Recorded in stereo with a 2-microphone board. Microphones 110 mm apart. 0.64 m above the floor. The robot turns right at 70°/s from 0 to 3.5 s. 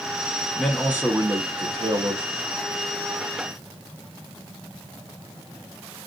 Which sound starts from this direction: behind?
A man speaking, at 0.6 s.